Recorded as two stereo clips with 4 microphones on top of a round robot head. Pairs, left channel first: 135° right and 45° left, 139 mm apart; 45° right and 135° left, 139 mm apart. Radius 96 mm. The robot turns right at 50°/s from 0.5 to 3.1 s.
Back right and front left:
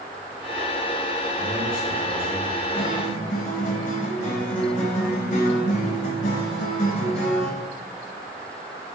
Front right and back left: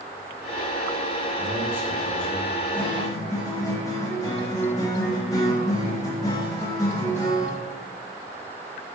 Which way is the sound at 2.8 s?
125° right.